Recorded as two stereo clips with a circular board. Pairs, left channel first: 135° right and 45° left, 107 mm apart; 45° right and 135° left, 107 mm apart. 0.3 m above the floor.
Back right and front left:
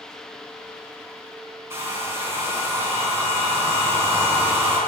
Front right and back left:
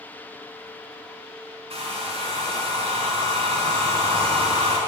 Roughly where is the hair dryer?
Left.